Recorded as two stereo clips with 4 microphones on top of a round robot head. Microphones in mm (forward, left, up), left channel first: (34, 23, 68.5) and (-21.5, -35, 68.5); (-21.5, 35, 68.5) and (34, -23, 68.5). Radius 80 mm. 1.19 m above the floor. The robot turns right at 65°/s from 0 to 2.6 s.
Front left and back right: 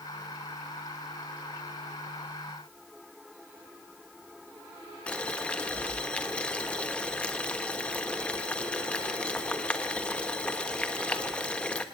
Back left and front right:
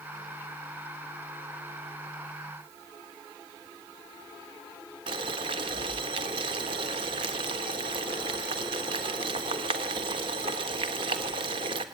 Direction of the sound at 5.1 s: 30° right.